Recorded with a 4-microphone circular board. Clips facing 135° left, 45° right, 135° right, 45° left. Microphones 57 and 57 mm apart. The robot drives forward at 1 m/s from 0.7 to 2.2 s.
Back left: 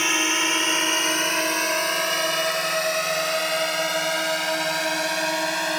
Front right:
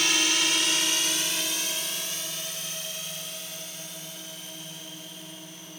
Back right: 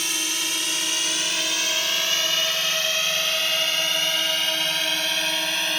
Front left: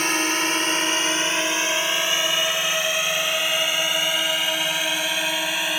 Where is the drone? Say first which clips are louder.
Back left 4 dB, front left 7 dB; 80° left; by 5.8 s 125° left.